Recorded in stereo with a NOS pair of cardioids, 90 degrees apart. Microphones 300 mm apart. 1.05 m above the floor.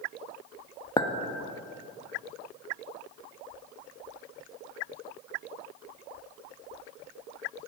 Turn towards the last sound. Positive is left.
turn(degrees=10)